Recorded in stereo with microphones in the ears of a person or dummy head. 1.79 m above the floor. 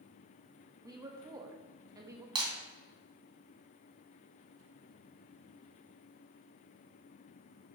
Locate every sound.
0.8 s a woman speaking: 15° right (ahead or behind), 0.9 m
2.4 s breaking glass: 30° right (ahead or behind), 2.5 m